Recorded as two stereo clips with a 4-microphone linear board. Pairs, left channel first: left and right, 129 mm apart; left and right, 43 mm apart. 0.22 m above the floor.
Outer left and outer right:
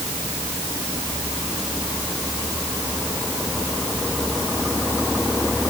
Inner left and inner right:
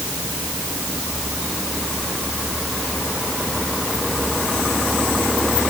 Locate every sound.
Only background noise.